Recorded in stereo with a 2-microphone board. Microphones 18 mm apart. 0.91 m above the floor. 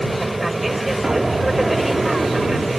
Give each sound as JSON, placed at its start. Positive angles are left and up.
{"t": 0.0, "sound": "an aircraft", "side_deg": -10}
{"t": 1.0, "sound": "an explosion", "side_deg": -40}